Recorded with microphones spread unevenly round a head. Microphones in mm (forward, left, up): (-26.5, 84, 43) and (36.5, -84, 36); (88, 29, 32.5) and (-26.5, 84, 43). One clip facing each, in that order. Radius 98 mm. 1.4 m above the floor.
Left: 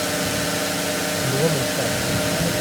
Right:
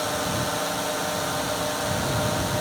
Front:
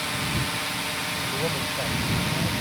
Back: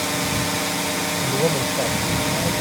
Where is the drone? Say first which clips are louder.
Left 3 dB, back 6 dB; 165° left.